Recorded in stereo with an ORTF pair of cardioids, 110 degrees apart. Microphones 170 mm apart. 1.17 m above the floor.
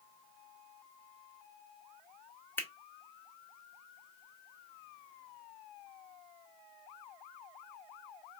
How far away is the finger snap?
About 1.0 m.